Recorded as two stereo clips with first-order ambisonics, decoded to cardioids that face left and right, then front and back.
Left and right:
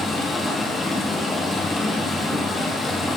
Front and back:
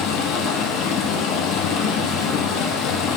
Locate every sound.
0.0 s running water: 20° left, 2.5 m